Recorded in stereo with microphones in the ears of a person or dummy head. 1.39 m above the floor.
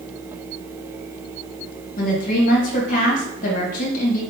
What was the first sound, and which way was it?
A woman speaking, 45° left (ahead or behind).